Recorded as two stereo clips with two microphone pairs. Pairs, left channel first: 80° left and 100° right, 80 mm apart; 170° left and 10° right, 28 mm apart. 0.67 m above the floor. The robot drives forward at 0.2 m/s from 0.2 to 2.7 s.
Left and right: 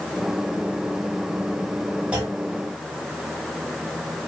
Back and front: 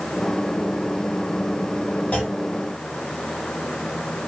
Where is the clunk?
170° right, 0.8 m.